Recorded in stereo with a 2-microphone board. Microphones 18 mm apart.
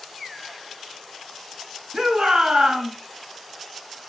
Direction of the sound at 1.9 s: 50° right (ahead or behind).